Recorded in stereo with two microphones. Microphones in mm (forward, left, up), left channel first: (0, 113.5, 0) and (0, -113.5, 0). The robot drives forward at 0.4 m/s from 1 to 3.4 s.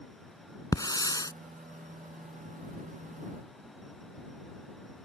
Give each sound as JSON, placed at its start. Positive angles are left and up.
{"t": 0.7, "sound": "a hiss", "side_deg": 15}